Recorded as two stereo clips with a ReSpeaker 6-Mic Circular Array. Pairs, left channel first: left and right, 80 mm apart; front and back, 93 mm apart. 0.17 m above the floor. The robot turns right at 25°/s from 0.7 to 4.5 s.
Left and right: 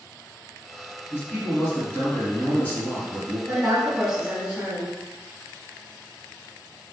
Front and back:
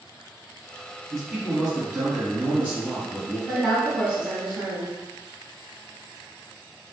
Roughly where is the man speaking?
Left.